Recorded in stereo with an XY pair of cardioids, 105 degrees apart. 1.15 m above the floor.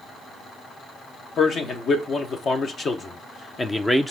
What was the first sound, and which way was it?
A man speaking, 60° left.